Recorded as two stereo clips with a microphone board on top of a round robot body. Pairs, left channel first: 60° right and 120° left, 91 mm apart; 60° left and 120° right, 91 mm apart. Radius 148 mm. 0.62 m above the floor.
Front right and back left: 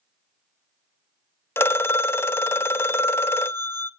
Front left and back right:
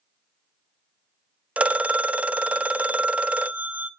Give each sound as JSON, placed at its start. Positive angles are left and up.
{"t": 1.6, "sound": "a phone ringing", "azimuth_deg": -65, "distance_m": 0.6}